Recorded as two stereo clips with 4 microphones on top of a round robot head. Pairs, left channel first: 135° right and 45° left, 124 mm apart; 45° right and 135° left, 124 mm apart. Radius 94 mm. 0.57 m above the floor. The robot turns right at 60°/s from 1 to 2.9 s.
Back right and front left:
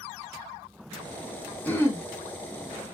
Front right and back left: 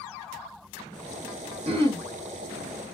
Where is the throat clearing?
150° left, 1.5 m; by 2.0 s 175° left, 1.5 m.